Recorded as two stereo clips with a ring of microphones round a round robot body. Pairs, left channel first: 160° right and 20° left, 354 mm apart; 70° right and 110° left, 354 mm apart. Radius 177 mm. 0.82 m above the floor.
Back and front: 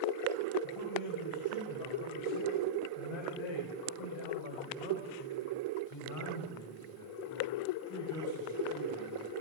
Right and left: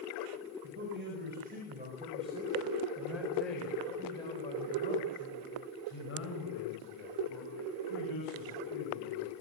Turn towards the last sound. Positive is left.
turn(degrees=-100)